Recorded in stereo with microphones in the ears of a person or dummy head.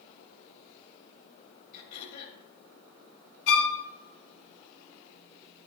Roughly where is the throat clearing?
Left.